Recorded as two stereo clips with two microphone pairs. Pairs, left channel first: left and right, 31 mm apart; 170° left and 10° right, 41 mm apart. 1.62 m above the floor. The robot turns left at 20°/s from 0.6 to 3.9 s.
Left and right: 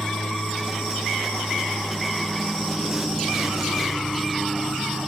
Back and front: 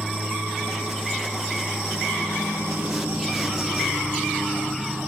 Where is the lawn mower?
40° left; by 5.1 s 25° right.